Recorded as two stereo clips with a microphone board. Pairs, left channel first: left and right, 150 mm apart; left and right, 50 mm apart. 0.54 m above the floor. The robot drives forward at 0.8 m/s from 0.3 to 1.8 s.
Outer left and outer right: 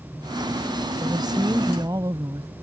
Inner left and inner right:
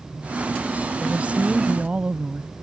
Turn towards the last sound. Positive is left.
turn(degrees=-25)  # may be behind; listen again after turning